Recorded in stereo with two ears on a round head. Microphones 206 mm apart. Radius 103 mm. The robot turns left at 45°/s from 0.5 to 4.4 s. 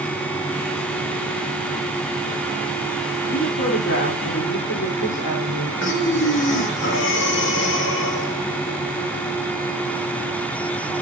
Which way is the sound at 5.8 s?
55° left (ahead or behind).